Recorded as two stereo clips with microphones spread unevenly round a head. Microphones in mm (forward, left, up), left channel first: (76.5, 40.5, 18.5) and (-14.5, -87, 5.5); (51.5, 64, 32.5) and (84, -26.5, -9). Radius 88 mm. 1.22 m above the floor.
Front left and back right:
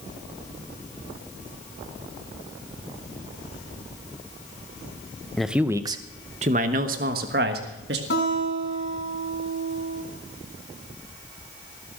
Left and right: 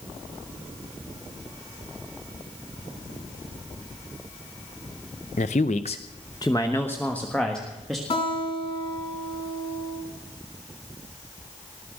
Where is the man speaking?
140° left, 0.6 m; by 8.0 s 160° right, 1.6 m.